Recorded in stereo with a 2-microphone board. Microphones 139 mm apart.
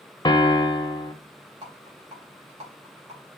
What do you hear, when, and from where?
0.2 s a piano: 35° left (ahead or behind), 0.8 m
1.6 s a rattle: 50° right (ahead or behind), 3 m